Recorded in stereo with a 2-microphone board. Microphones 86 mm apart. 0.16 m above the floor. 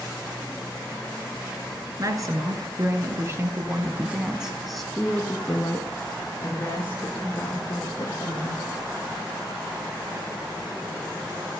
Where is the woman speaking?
45° right (ahead or behind), 1.8 m; by 8.6 s 40° left (ahead or behind), 3 m.